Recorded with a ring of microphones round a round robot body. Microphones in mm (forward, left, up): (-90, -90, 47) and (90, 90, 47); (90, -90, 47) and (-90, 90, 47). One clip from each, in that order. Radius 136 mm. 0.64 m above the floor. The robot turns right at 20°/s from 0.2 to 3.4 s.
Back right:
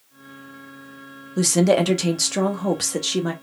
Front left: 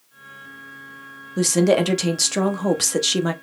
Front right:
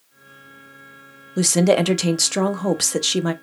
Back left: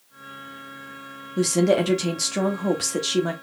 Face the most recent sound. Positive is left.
turn(degrees=-5)